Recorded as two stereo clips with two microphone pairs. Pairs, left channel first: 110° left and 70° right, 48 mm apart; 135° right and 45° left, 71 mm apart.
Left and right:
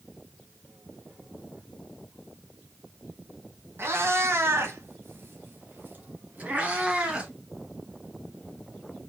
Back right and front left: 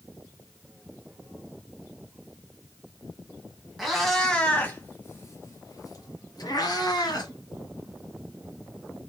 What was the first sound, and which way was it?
A cat meowing, 50° right.